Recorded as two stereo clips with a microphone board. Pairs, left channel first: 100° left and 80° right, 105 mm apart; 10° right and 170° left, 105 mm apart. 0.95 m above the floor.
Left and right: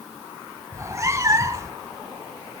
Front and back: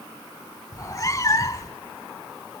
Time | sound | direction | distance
0.7 | a cat meowing | 40° right | 1.0 m